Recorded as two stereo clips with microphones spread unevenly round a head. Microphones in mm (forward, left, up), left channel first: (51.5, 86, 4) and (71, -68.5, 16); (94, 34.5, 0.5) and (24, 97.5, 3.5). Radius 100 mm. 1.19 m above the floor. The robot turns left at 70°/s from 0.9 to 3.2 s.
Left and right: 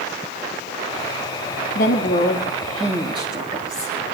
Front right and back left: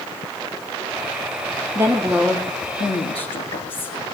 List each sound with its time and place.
1.8 s a woman speaking: 80° left, 2 m; by 4.0 s 25° right, 2 m